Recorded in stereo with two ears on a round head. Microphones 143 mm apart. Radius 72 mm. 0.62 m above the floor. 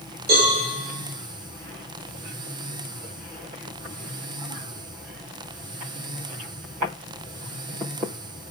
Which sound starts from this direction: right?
A cowbell, at 0.3 s.